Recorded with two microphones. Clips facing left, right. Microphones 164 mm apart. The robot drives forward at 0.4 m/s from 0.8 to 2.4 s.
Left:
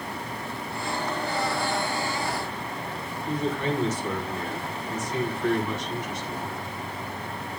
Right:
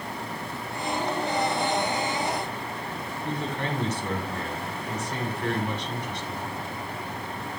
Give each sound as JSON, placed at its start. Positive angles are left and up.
{"t": 3.2, "sound": "a man speaking", "side_deg": -65, "distance_m": 6.0}